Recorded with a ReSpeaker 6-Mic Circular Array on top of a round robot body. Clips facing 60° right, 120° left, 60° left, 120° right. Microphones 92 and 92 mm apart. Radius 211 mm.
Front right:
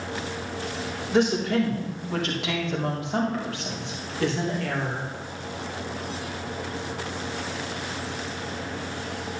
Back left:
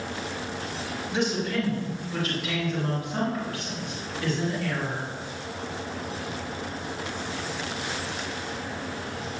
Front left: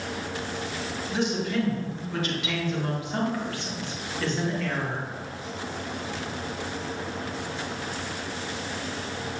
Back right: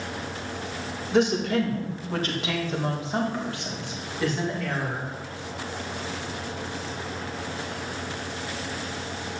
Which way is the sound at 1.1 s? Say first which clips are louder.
Front right 5 dB, back right 5 dB; 90° right.